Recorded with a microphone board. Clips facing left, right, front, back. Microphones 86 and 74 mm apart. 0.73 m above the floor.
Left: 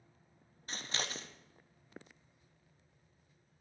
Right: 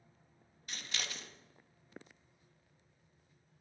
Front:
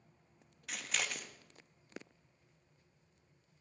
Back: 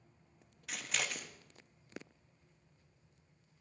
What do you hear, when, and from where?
0.7 s scissors: 95° left, 0.6 m